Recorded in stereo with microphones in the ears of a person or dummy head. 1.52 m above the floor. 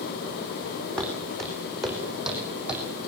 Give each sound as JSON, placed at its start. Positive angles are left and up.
{"t": 1.0, "sound": "footsteps", "side_deg": 5, "distance_m": 5.0}